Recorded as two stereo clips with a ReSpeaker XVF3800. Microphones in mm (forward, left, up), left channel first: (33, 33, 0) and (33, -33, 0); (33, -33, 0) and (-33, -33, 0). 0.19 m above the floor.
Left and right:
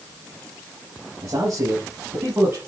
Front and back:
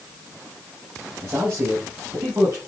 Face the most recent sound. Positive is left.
turn(degrees=-130)